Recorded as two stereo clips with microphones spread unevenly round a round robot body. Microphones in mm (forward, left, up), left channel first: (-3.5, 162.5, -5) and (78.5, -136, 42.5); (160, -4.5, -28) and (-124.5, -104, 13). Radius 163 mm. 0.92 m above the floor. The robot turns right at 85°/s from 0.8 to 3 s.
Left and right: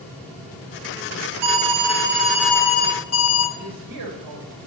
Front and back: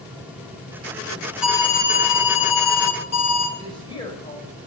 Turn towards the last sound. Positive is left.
turn(degrees=-55)